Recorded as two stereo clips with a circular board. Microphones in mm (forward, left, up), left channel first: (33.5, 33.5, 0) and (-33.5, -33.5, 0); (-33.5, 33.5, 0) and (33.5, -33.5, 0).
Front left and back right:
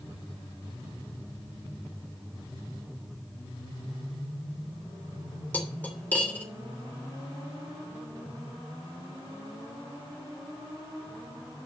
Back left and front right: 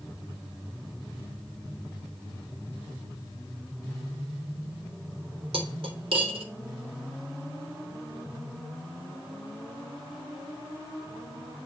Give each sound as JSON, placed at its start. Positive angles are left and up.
{"t": 5.5, "sound": "cutlery clinking", "azimuth_deg": -30, "distance_m": 2.5}